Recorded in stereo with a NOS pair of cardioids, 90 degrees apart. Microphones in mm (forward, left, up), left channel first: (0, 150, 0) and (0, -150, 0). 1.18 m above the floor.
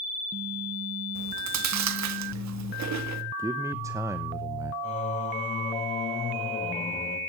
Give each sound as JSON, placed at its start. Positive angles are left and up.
{"t": 1.1, "sound": "chewing", "azimuth_deg": -65, "distance_m": 1.7}
{"t": 3.4, "sound": "a man speaking", "azimuth_deg": -10, "distance_m": 0.9}
{"t": 4.8, "sound": "singing", "azimuth_deg": 25, "distance_m": 7.0}